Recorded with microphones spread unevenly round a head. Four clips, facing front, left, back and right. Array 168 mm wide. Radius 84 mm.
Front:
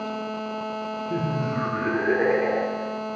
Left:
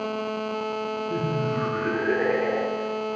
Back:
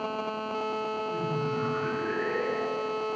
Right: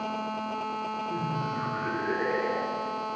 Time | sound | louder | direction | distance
1.1 | laughter | left 6 dB, front 3 dB | 20° left | 2.5 m